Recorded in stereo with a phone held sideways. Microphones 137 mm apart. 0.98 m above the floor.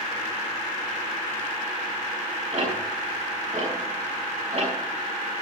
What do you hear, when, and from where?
2.5 s ticking: 55° right (ahead or behind), 6.5 m